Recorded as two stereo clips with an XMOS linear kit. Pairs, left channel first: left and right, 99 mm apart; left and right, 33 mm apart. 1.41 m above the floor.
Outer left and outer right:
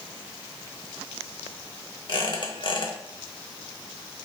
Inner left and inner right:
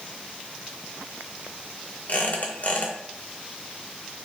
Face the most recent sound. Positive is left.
turn(degrees=55)  # may be behind; listen again after turning